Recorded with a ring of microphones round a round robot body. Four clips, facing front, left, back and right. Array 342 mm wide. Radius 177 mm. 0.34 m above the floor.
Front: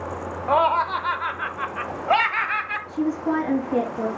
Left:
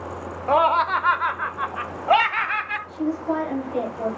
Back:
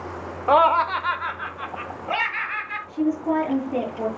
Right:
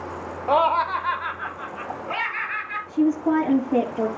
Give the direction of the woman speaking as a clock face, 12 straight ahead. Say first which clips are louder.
Right 6 dB, back 1 dB; 3 o'clock.